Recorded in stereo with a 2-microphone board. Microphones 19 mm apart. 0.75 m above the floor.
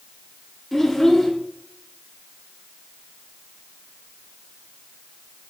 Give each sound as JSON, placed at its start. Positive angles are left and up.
{"t": 0.7, "sound": "a child speaking", "side_deg": 15, "distance_m": 1.4}